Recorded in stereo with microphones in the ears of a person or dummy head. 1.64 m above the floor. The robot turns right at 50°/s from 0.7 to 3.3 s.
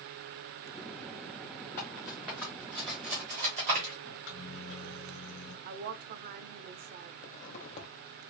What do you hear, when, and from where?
1.8 s cutlery clinking: 20° left (ahead or behind), 1.0 m; by 3.9 s 35° right (ahead or behind), 1.0 m
4.0 s a microwave: 70° left (ahead or behind), 1.1 m
5.7 s a woman speaking: 45° right (ahead or behind), 0.5 m
7.2 s a zipper: 40° left (ahead or behind), 0.7 m